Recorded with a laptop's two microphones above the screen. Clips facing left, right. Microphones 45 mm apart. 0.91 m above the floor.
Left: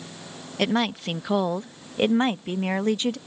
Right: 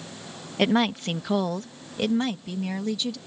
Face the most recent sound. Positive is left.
turn(degrees=50)  # may be behind; listen again after turning